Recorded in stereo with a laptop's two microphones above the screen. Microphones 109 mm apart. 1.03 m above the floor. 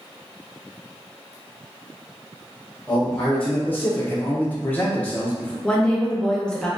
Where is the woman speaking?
5° left (ahead or behind), 0.6 m.